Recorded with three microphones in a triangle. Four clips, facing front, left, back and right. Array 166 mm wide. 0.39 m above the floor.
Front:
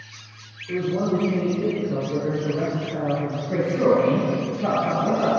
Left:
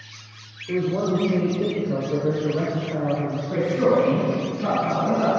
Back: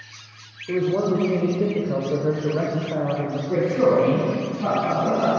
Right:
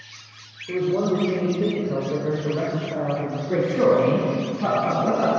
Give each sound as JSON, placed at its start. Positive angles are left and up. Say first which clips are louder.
{"t": 0.7, "sound": "a man speaking", "louder": "right 1 dB, back 2 dB", "azimuth_deg": -175, "distance_m": 1.1}
{"t": 3.5, "sound": "a man speaking", "louder": "right 1 dB, back 1 dB", "azimuth_deg": -105, "distance_m": 3.0}